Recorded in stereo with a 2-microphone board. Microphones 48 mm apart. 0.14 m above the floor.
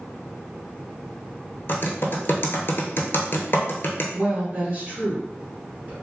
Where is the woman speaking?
40° right (ahead or behind), 2.0 m.